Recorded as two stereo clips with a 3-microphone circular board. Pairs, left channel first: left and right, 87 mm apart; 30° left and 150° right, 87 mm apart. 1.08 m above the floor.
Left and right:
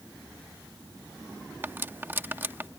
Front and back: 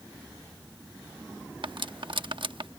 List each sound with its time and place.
1.6 s cutlery clinking: 155° right